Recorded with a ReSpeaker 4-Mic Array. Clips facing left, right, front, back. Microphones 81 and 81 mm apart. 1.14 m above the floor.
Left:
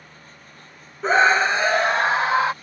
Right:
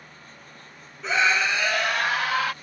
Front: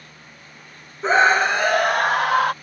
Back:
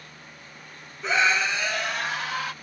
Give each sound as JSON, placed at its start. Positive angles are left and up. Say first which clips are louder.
{"t": 1.0, "sound": "a scream", "louder": "left 6 dB, front 7 dB", "azimuth_deg": 50}